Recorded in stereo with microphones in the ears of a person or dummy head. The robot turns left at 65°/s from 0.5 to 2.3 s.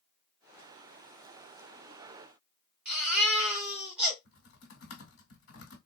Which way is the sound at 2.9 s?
10° right (ahead or behind).